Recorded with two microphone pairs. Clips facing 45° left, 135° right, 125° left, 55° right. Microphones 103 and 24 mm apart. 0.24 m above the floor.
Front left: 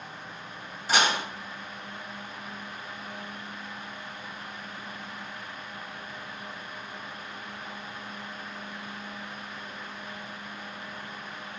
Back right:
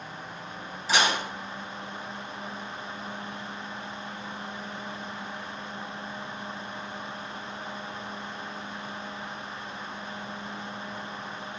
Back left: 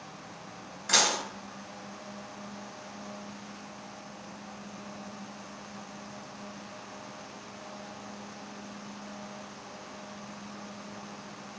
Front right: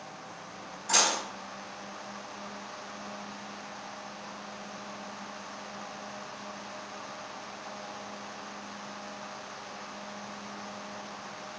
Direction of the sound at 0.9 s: 90° left.